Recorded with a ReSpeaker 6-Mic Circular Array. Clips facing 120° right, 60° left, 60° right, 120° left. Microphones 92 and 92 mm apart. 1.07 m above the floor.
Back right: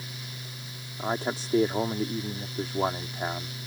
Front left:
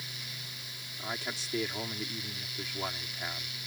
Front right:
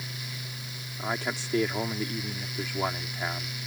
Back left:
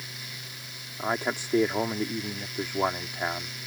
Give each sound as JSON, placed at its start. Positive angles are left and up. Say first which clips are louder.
{"t": 1.0, "sound": "a man speaking", "louder": "back right 10 dB, back left 3 dB", "azimuth_deg": -165}